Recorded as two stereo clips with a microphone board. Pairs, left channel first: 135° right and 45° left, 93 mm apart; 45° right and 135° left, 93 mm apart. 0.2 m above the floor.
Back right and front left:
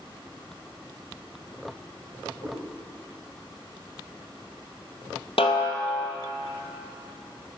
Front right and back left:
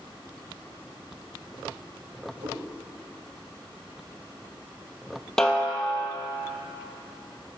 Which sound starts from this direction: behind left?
A cat meowing, at 2.4 s.